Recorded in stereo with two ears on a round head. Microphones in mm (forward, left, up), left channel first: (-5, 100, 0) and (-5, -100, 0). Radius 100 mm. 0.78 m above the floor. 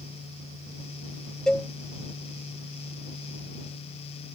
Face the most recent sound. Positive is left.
turn(degrees=5)  # may be behind; listen again after turning